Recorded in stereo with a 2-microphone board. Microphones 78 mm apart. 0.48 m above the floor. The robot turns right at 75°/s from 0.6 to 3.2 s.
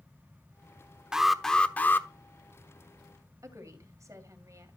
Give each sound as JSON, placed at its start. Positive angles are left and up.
{"t": 1.1, "sound": "an alarm", "azimuth_deg": -15, "distance_m": 0.9}
{"t": 3.4, "sound": "a woman speaking", "side_deg": -45, "distance_m": 2.5}